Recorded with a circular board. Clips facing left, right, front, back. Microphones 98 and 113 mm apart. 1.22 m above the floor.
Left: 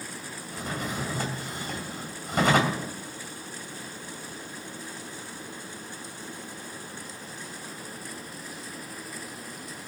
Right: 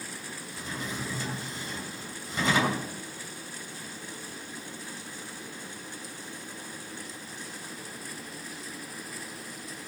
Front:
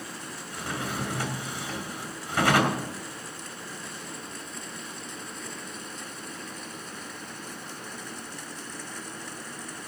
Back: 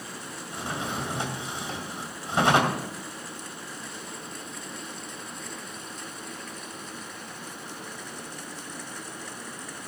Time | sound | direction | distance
0.5 | a drawer | 115° left | 2.5 m